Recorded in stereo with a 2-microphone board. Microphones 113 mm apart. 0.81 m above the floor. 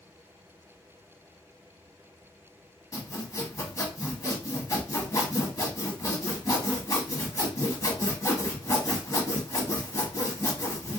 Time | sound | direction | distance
2.9 | sawing | 30° left (ahead or behind) | 1.0 m